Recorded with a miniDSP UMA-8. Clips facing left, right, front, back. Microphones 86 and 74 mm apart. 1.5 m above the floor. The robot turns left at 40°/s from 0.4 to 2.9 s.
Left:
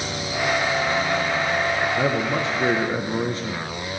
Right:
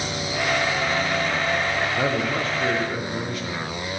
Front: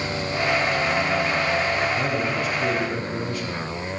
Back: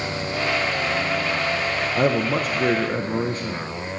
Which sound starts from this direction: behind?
A man speaking, at 1.9 s.